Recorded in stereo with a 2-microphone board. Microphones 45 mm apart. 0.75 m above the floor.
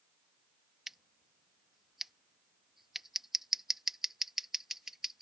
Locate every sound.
0.9 s scissors: 5° right (ahead or behind)